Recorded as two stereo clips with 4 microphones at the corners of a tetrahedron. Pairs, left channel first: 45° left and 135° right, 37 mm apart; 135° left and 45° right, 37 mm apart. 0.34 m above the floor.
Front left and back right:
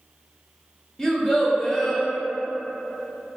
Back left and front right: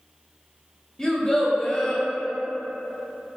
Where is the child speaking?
100° left, 0.7 m.